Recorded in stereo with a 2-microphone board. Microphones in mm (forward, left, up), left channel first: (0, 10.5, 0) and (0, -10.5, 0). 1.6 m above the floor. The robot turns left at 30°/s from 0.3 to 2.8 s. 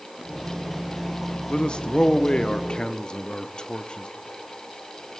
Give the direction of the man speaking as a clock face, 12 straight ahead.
9 o'clock.